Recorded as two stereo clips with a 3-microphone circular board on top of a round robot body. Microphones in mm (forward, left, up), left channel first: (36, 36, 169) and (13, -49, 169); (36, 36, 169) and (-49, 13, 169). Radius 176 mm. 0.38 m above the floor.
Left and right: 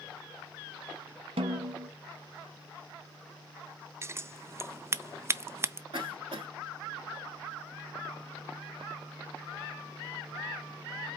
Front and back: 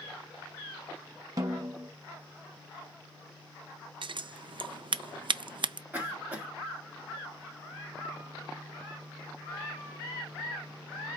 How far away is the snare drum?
About 0.9 m.